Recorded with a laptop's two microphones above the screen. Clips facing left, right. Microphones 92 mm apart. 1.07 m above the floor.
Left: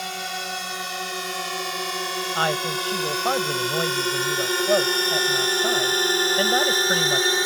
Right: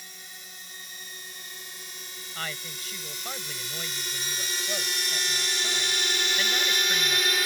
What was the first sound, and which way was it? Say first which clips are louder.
A drone: left 19 dB; 80° left.